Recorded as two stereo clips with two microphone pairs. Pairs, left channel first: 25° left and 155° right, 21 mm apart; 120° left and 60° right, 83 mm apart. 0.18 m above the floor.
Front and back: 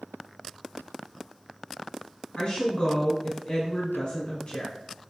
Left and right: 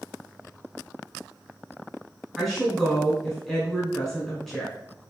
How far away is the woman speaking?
About 1.8 m.